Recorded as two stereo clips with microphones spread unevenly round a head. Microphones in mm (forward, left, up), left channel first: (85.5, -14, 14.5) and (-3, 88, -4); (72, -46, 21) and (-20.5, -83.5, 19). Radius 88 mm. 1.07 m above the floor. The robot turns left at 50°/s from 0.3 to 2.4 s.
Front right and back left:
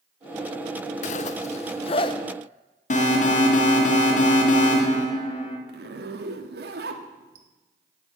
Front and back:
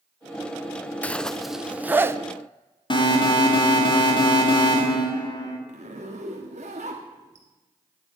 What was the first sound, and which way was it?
A zipper, 50° right.